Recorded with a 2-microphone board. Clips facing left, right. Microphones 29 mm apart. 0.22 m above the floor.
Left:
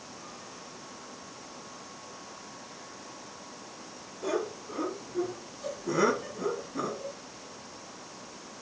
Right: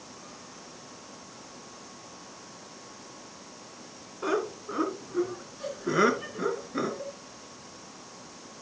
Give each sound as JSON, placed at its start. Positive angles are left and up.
{"t": 4.2, "sound": "laughter", "side_deg": -55, "distance_m": 2.5}